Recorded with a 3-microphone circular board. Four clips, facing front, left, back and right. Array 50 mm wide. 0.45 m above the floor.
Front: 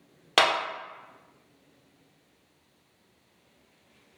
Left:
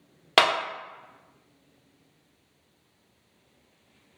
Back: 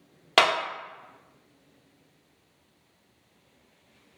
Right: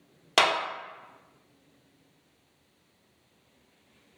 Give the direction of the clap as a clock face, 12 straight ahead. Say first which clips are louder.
Left 2 dB, back 1 dB; 9 o'clock.